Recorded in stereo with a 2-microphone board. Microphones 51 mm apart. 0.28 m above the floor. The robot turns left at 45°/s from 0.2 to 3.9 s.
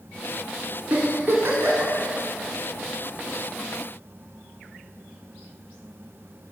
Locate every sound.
0.9 s a giggle: 30° right (ahead or behind), 1.5 m; by 1.9 s 70° right (ahead or behind), 1.5 m